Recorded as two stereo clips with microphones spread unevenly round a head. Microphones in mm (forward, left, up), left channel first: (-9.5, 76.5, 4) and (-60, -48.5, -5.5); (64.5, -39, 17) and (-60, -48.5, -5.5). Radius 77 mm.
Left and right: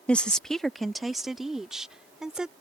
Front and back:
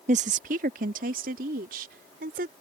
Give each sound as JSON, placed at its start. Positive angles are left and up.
{"t": 0.1, "sound": "a woman speaking", "azimuth_deg": 150}